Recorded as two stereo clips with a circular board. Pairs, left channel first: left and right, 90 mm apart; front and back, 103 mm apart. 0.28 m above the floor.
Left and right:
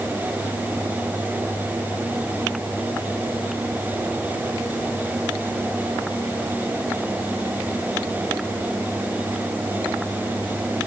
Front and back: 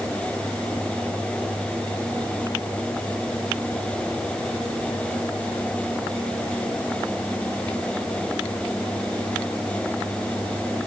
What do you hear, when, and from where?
Only background noise.